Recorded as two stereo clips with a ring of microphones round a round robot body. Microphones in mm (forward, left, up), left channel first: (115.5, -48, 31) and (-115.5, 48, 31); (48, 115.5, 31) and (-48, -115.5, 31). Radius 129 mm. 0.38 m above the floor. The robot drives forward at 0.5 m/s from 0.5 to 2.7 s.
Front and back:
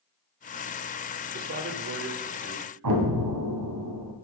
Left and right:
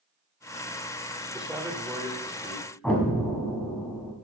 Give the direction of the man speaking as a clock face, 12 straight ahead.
7 o'clock.